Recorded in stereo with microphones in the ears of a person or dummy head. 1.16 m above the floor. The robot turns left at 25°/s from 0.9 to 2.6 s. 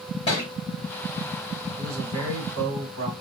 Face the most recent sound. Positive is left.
turn(degrees=-80)